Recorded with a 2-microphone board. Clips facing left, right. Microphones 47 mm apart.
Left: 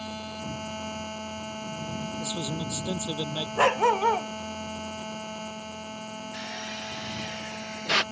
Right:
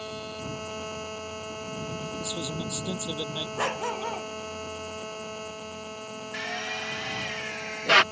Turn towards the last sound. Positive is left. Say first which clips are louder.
# right 7 dB
turn(degrees=-45)  # may be behind; listen again after turning